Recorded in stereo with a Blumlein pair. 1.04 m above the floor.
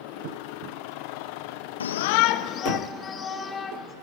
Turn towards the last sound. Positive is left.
turn(degrees=20)